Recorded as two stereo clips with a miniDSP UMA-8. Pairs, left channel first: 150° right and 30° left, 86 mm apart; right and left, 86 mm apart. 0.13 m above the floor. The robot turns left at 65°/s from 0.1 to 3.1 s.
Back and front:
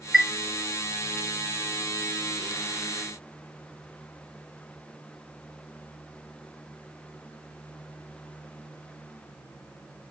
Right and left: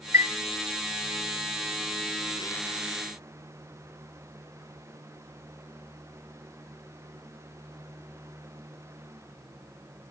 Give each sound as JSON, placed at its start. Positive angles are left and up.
{"t": 0.1, "sound": "a chime", "azimuth_deg": 115, "distance_m": 0.7}